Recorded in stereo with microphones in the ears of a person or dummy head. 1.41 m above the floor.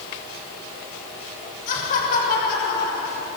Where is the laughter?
45° left (ahead or behind), 6.5 m; by 3.3 s 55° left (ahead or behind), 6 m.